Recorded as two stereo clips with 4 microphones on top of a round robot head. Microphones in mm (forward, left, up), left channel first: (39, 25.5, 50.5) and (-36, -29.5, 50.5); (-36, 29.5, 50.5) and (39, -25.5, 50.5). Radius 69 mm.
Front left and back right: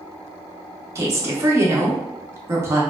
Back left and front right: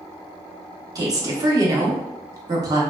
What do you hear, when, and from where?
0.9 s a woman speaking: 85° right, 0.9 m